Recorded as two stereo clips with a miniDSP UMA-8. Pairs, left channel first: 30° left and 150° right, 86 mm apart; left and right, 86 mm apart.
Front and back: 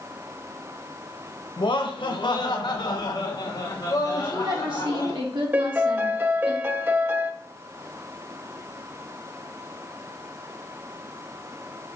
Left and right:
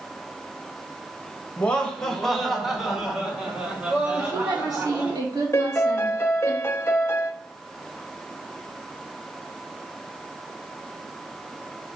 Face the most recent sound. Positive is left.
turn(degrees=145)